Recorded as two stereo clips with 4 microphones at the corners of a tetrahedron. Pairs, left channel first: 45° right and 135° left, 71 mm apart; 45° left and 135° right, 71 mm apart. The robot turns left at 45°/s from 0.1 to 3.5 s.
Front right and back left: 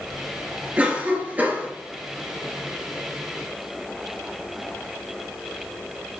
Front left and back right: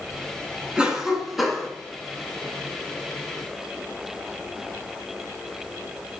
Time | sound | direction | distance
0.8 | a cough | 165° left | 1.6 m